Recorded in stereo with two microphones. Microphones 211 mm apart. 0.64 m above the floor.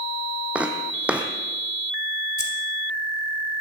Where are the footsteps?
5° right (ahead or behind), 1.9 m.